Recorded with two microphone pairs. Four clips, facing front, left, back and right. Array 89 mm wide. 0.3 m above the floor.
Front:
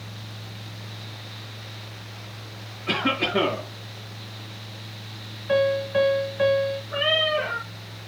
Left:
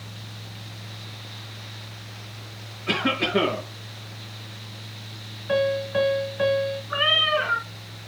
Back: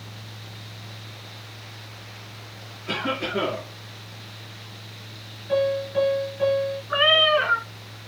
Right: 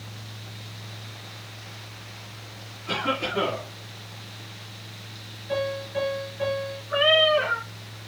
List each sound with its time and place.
2.9 s a cough: 65° left, 6 m
5.5 s a piano: 70° left, 4.5 m
6.9 s a cat meowing: 160° left, 2.0 m